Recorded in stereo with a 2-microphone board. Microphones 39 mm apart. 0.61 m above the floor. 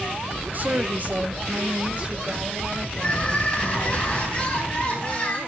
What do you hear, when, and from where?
0.5 s a woman speaking: 45° right (ahead or behind), 0.9 m; by 3.9 s 25° right (ahead or behind), 4 m
2.9 s crying: 30° left (ahead or behind), 6.5 m